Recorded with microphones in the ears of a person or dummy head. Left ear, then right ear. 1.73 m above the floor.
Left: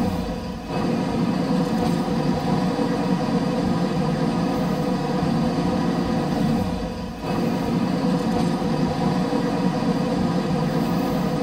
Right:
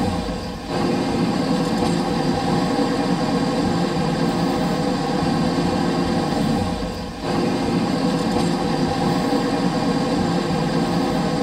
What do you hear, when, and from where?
0.0 s an engine running: 15° right (ahead or behind), 1.1 m